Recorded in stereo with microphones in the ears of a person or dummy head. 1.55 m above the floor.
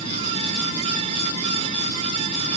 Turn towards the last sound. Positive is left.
No sound to turn to.